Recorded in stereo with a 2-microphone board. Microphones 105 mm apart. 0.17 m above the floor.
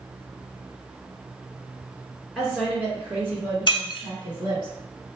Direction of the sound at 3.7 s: 50° left (ahead or behind).